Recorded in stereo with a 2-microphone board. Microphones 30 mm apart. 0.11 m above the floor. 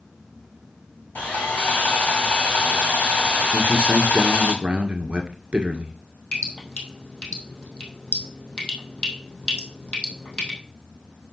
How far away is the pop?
No pop in this recording.